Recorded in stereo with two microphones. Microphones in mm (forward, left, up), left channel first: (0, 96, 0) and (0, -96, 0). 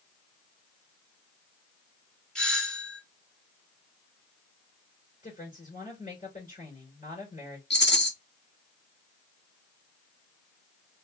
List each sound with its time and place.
2.4 s a doorbell: 5° left (ahead or behind), 0.9 m
5.2 s a woman speaking: 45° left (ahead or behind), 3 m
7.7 s a rattle: 65° left (ahead or behind), 1.3 m